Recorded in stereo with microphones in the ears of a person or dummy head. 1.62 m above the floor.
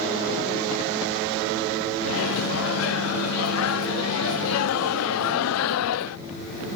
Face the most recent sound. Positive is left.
turn(degrees=80)